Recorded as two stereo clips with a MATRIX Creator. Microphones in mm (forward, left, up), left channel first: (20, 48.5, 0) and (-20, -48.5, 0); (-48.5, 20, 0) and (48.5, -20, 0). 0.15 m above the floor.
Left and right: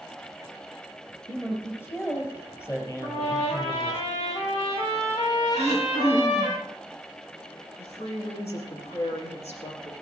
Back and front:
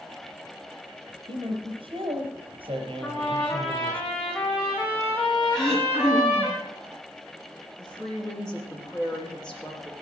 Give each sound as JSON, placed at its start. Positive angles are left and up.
{"t": 1.3, "sound": "a man speaking", "azimuth_deg": 5, "distance_m": 4.0}
{"t": 3.0, "sound": "a trumpet", "azimuth_deg": 80, "distance_m": 8.0}
{"t": 5.5, "sound": "throat clearing", "azimuth_deg": 70, "distance_m": 5.5}
{"t": 7.8, "sound": "a woman speaking", "azimuth_deg": 75, "distance_m": 7.5}